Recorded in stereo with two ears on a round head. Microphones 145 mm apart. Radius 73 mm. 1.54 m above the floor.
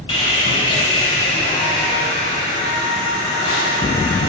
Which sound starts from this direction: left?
Sawing, at 0.1 s.